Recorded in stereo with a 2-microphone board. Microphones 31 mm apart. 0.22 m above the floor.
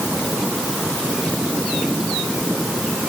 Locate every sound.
Only background noise.